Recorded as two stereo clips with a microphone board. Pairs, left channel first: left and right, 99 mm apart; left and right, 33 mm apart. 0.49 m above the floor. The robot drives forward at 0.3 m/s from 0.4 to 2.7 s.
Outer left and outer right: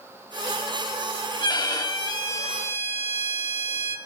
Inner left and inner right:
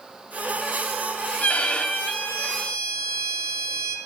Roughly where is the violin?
Left.